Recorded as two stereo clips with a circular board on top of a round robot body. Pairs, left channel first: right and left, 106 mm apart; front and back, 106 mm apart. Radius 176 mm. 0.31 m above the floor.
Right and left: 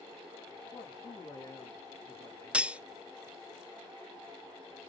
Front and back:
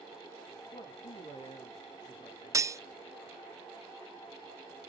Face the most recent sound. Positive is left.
turn(degrees=160)